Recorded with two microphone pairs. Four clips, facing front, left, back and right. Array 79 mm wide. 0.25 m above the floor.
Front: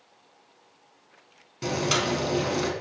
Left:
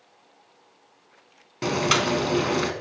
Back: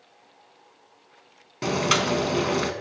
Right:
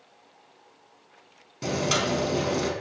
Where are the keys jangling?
I don't hear keys jangling.